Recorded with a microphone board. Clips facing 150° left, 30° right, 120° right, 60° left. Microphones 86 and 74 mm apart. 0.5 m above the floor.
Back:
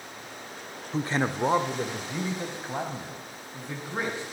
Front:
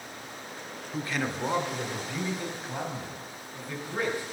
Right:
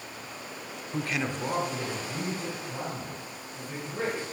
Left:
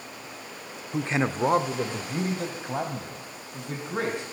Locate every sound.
0.9 s a man speaking: 120° left, 0.7 m; by 4.2 s 80° left, 4 m